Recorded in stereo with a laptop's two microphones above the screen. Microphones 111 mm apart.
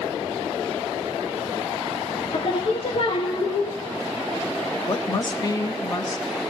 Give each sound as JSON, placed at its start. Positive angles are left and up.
{"t": 2.3, "sound": "singing", "side_deg": 55, "distance_m": 1.6}
{"t": 4.9, "sound": "a woman speaking", "side_deg": 35, "distance_m": 0.6}